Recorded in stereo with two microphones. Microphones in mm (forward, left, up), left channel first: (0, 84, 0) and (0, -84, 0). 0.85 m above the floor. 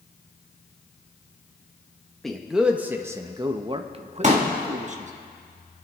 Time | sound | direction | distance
2.2 | a man speaking | centre (ahead or behind) | 1.1 m
4.2 | a pop | 45° right (ahead or behind) | 1.9 m